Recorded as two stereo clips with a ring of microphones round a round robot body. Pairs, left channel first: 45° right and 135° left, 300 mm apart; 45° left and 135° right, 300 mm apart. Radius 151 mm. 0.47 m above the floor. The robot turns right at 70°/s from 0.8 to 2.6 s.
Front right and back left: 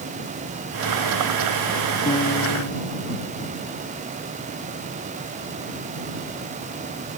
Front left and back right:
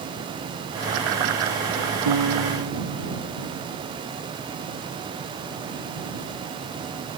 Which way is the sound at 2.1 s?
120° right.